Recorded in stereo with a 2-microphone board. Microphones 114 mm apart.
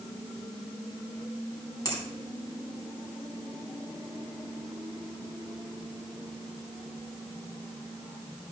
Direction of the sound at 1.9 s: 30° left (ahead or behind).